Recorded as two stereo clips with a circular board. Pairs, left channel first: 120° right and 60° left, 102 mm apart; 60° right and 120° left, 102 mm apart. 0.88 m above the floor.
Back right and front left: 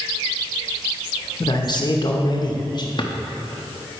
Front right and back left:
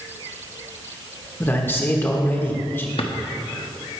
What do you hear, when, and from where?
1.4 s a man speaking: 120° right, 1.0 m
3.0 s a drawer: 80° right, 0.6 m